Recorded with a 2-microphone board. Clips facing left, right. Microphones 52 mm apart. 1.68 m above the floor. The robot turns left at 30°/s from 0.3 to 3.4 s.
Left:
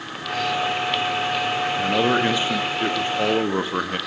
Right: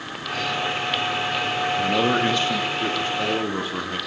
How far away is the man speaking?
About 0.6 m.